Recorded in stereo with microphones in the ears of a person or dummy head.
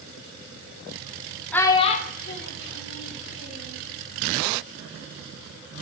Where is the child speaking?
5° left (ahead or behind), 0.9 m; by 3.8 s 80° left, 3 m.